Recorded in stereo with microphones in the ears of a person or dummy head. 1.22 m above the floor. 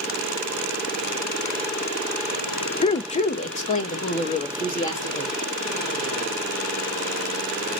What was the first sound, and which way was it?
A woman speaking, 30° left (ahead or behind).